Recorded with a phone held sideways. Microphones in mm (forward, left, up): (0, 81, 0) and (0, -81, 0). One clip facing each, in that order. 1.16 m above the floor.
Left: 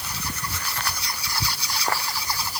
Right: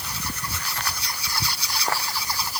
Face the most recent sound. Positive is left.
No sound to turn to.